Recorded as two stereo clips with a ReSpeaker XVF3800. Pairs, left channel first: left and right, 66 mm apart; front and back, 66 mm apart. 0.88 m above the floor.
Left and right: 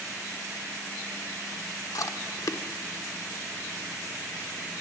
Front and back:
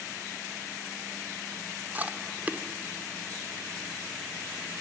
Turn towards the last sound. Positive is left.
turn(degrees=115)